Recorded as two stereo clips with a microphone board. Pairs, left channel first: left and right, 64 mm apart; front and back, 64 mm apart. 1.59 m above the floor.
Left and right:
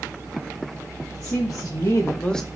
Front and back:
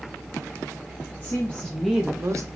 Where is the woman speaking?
55° left, 1.2 m; by 2.5 s 175° left, 0.7 m.